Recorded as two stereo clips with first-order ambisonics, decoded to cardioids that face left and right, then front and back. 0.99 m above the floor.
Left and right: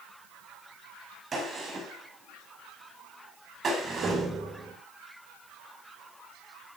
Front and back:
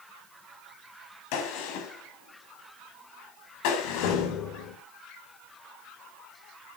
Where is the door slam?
20° right, 3 m.